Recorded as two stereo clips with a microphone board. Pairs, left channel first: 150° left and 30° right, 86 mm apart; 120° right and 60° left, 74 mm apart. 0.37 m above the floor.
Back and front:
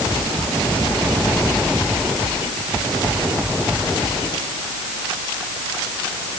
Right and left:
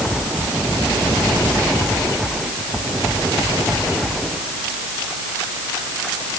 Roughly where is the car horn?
No car horn in this recording.